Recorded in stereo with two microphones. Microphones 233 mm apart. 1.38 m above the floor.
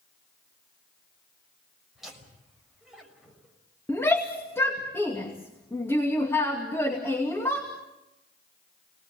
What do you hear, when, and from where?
1.9 s laughter: centre (ahead or behind), 6 m
3.9 s a shout: 10° left (ahead or behind), 2.5 m